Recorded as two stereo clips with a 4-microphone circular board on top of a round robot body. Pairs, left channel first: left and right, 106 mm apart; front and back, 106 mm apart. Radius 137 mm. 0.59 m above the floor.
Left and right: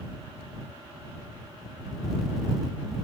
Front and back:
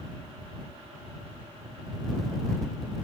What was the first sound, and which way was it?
Only background noise.